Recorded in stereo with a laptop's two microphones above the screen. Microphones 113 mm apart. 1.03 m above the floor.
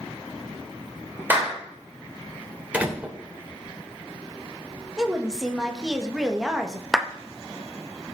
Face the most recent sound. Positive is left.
turn(degrees=0)  # may be behind; listen again after turning